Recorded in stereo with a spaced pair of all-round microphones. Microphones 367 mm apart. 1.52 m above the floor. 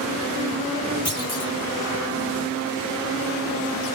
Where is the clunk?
40° left (ahead or behind), 3 m.